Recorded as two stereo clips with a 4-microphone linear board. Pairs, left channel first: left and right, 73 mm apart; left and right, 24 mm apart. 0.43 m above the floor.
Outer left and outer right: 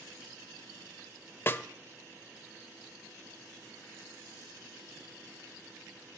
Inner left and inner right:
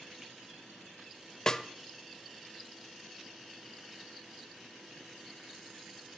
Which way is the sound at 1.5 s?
30° left (ahead or behind).